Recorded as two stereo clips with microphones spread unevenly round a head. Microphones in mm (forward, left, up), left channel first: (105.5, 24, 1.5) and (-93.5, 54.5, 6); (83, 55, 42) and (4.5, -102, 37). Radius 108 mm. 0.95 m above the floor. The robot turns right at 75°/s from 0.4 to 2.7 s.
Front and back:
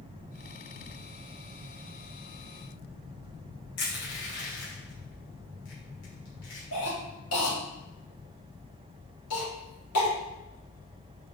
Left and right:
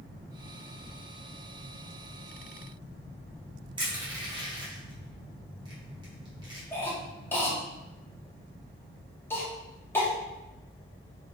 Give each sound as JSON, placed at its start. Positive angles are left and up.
{"t": 3.8, "sound": "crushing", "azimuth_deg": -50, "distance_m": 1.9}
{"t": 6.7, "sound": "a cough", "azimuth_deg": -15, "distance_m": 1.9}